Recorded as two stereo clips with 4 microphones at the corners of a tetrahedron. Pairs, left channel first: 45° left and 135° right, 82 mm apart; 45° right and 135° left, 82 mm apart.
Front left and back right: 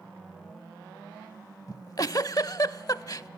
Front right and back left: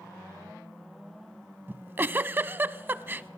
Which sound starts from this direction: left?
A giggle, at 1.7 s.